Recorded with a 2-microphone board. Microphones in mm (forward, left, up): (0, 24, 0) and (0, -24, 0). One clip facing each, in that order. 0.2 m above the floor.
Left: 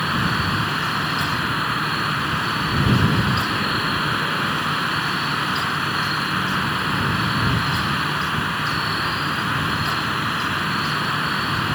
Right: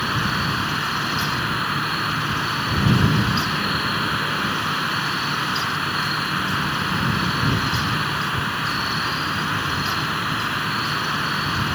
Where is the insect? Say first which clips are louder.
Left 1 dB; 5° left (ahead or behind).